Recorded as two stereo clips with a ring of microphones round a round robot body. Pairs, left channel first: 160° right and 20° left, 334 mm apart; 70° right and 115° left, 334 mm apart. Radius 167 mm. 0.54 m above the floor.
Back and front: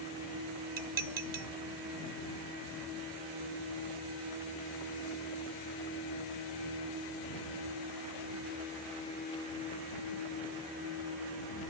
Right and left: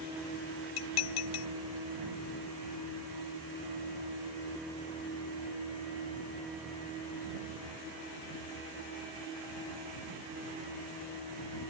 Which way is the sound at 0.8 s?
40° right.